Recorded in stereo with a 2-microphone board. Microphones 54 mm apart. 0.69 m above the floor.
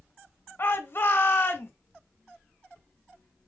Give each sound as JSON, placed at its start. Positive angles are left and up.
{"t": 0.6, "sound": "a shout", "side_deg": 40, "distance_m": 1.0}